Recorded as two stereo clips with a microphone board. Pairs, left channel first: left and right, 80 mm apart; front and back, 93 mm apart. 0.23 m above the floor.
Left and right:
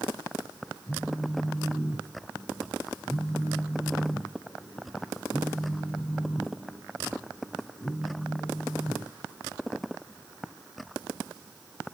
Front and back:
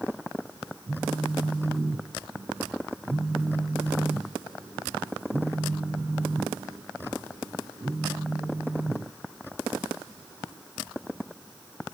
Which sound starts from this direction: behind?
A phone buzzing, at 0.9 s.